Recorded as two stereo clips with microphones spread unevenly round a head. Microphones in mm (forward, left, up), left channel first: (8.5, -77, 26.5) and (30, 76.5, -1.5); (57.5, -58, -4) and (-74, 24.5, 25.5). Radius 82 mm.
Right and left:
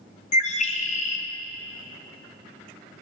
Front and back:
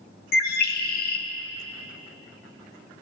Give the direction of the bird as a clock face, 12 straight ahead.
2 o'clock.